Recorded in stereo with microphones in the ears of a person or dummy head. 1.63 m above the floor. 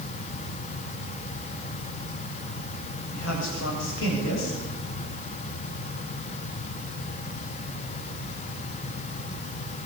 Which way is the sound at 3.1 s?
75° left (ahead or behind).